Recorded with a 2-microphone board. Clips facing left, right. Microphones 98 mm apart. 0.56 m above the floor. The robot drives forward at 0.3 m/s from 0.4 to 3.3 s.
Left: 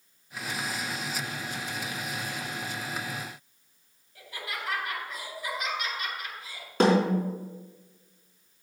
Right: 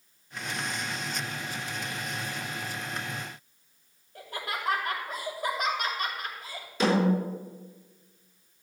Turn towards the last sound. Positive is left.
turn(degrees=60)  # may be behind; listen again after turning